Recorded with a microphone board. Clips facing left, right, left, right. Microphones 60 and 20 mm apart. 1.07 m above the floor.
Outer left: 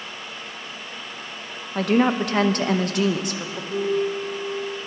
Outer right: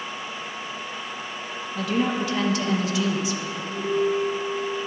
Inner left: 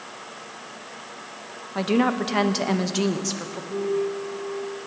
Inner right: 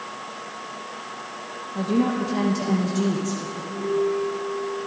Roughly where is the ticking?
No ticking in this recording.